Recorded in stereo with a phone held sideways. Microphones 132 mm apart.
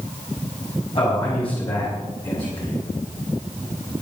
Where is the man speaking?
45° left (ahead or behind), 5 m; by 2.8 s 40° left (ahead or behind), 6 m.